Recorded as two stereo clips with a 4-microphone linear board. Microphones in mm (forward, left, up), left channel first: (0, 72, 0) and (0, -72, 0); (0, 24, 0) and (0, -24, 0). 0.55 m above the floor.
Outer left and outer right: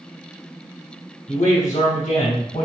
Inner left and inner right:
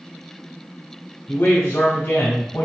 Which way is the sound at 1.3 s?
60° left (ahead or behind).